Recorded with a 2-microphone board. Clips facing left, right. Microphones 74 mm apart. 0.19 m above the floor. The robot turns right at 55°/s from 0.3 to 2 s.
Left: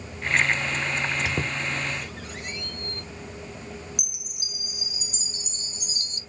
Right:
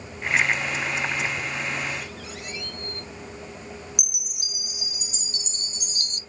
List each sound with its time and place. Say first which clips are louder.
1.2 s a squeak: left 1 dB; 80° left, 0.9 m; by 3.0 s 50° left (ahead or behind), 0.9 m
4.0 s a chime: right 1 dB; 65° right (ahead or behind), 0.6 m